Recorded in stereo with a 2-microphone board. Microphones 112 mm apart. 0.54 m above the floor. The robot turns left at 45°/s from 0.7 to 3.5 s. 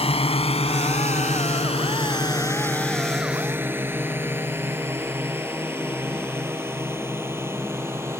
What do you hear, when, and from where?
0.0 s a drone: 60° left (ahead or behind); by 8.2 s 20° right (ahead or behind)